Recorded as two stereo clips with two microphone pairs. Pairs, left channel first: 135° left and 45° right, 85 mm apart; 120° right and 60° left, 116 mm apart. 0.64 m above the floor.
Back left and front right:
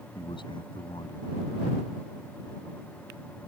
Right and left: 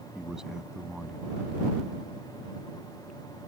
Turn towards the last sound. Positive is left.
turn(degrees=145)